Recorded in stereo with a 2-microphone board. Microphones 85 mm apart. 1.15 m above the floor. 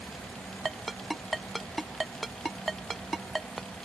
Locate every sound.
0.7 s a ringtone: centre (ahead or behind)